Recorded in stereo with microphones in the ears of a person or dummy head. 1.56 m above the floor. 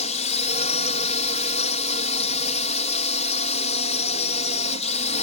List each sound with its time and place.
0.0 s a drone: 35° left (ahead or behind)